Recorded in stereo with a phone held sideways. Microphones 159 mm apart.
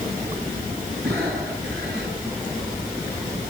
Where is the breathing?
85° right, 9.5 m.